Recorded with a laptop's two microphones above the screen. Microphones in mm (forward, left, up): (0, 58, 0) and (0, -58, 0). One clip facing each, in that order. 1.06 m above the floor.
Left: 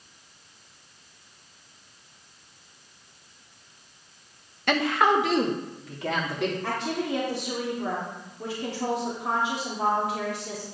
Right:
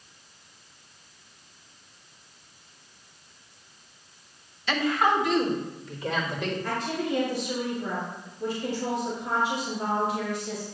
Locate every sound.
4.7 s a woman speaking: 55° left (ahead or behind), 1.2 m; by 6.5 s 65° left (ahead or behind), 3 m
6.6 s a woman speaking: 75° left (ahead or behind), 3 m